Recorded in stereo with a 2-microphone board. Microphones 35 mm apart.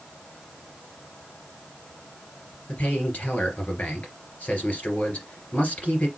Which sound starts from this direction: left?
A man speaking, at 2.7 s.